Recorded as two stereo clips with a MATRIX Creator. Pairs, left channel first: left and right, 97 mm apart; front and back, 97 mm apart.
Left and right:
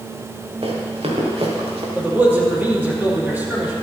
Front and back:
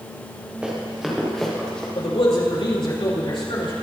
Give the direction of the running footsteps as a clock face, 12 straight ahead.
3 o'clock.